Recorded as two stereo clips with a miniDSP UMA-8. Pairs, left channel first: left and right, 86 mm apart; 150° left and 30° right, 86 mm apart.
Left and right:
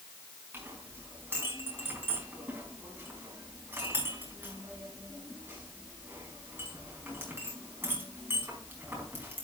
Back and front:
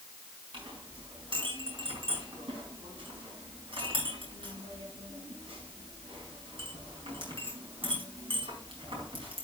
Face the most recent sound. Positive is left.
turn(degrees=-25)